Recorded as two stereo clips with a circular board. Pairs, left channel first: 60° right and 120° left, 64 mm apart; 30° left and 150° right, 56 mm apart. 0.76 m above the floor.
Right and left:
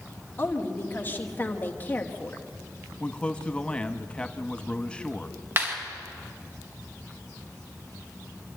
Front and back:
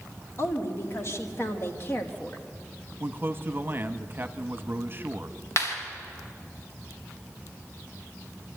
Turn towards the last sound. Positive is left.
turn(degrees=65)